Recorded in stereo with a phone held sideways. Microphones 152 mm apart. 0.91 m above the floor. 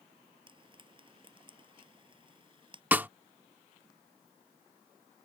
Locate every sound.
0.5 s frying: 35° right (ahead or behind)
2.9 s a snare drum: 10° right (ahead or behind)